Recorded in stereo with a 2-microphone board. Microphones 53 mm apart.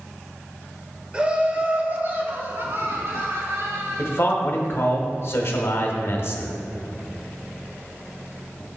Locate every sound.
1.1 s laughter: 20° right (ahead or behind), 1.4 m; by 4.3 s 65° right (ahead or behind), 2.5 m
4.0 s a man speaking: 55° left (ahead or behind), 1.3 m